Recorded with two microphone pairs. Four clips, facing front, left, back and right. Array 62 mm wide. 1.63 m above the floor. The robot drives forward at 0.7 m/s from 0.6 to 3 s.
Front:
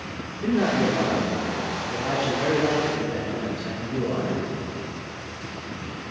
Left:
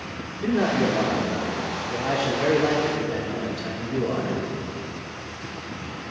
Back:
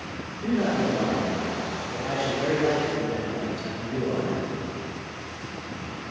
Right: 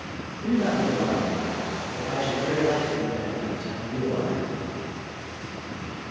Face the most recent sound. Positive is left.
turn(degrees=95)